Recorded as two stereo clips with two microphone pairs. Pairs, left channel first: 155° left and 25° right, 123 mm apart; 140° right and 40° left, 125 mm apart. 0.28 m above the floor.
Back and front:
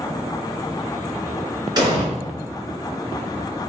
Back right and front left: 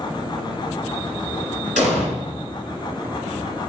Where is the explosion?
30° left, 3 m.